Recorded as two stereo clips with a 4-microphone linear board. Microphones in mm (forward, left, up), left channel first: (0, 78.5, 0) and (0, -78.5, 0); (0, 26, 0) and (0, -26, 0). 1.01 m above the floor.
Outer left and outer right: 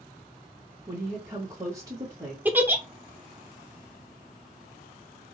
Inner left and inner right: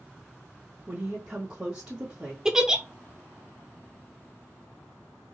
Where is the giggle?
10° right (ahead or behind), 0.6 m.